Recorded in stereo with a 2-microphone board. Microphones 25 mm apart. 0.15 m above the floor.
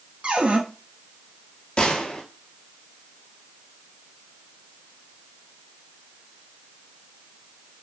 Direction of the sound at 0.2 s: 45° right (ahead or behind).